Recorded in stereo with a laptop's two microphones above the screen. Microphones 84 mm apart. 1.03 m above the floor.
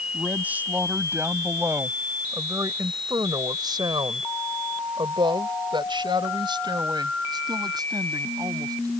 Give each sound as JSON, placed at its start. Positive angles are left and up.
{"t": 0.1, "sound": "a woman speaking", "side_deg": -15}